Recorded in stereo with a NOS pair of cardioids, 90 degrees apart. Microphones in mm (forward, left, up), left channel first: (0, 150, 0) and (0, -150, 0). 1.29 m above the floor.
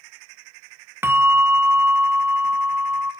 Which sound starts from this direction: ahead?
A bell, at 1.0 s.